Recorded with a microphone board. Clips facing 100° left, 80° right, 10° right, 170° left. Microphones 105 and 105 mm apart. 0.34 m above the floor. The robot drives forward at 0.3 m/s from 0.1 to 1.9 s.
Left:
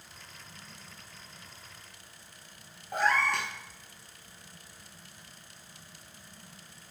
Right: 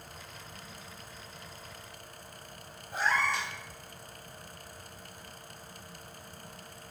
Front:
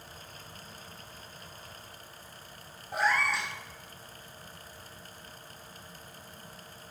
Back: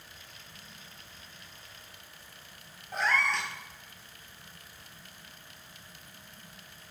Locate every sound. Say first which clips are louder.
2.9 s a cat meowing: left 2 dB, front 1 dB; 70° left, 0.7 m